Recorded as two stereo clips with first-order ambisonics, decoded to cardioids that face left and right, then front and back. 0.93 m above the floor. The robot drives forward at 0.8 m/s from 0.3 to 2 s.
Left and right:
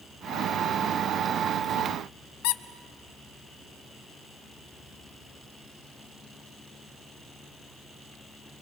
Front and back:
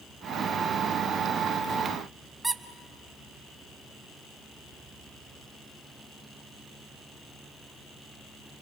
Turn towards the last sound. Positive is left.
turn(degrees=100)